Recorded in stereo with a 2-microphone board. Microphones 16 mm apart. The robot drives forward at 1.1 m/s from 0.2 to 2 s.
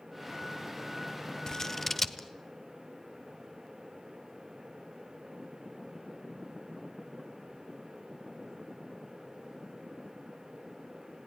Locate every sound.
1.5 s scissors: 35° left (ahead or behind), 0.5 m; by 2.3 s 15° left (ahead or behind), 1.1 m